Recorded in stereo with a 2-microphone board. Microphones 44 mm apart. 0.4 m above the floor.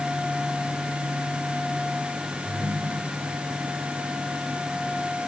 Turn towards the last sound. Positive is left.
turn(degrees=-55)  # may be behind; listen again after turning